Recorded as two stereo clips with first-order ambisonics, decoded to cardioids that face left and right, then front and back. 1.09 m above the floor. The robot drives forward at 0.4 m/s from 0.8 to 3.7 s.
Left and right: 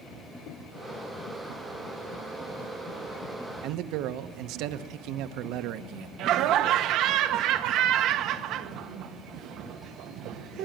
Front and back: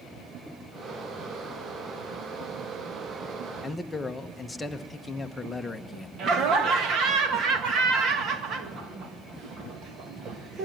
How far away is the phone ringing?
I don't hear a phone ringing.